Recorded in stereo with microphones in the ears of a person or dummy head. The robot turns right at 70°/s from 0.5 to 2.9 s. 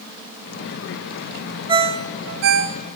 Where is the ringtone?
20° right (ahead or behind), 1.1 m; by 2.8 s 65° right (ahead or behind), 1.1 m.